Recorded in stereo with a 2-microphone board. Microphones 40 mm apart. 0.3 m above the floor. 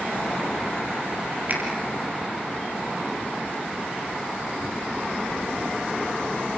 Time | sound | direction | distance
1.5 | a finger snap | 45° right (ahead or behind) | 5.5 m